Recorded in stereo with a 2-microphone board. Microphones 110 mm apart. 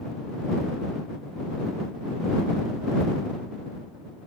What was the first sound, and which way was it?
Only background noise.